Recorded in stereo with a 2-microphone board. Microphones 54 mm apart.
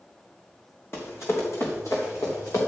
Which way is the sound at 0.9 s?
50° left (ahead or behind).